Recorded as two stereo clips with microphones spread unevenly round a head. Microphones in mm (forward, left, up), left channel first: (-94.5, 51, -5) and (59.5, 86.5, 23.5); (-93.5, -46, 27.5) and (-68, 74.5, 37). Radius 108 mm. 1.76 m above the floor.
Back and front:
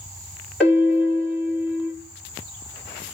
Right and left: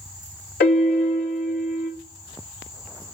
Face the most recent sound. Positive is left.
turn(degrees=-75)